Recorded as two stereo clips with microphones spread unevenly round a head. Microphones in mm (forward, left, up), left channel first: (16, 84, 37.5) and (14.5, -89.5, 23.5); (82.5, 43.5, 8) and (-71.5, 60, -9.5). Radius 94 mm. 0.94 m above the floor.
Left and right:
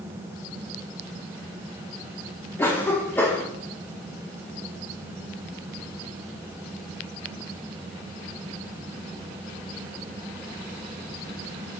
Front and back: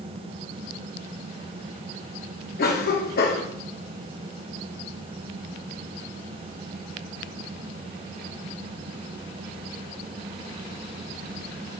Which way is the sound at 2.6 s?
10° left.